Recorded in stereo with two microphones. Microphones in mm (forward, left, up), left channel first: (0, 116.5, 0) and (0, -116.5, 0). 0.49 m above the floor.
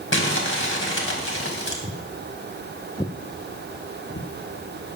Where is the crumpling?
60° left (ahead or behind), 2.5 m.